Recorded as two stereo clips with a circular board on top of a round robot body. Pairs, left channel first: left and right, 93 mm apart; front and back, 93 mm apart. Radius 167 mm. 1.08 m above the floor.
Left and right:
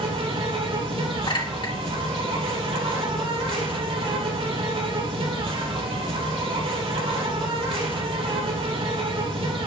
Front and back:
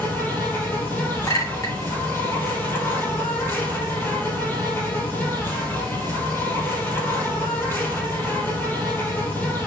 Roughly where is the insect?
Right.